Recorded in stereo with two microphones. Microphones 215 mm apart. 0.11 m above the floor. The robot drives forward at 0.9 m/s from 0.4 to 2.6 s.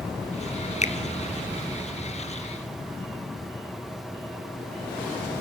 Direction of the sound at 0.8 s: 35° left (ahead or behind).